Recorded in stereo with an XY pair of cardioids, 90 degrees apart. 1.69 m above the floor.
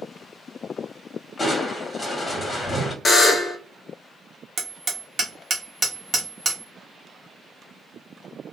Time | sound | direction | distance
1.4 | crushing | 30° left | 1.2 m
3.0 | a buzzer | 35° left | 0.8 m
4.6 | hammering | 40° right | 1.0 m